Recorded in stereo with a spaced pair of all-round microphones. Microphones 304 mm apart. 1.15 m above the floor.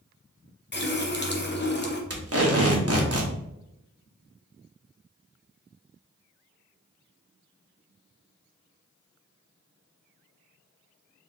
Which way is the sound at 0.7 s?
35° left (ahead or behind).